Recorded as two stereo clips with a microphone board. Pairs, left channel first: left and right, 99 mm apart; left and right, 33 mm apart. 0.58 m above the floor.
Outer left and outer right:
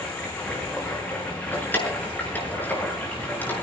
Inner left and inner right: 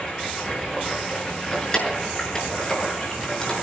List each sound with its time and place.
0.0 s running water: 15° left (ahead or behind), 8.5 m
1.5 s keys jangling: 20° left (ahead or behind), 6.5 m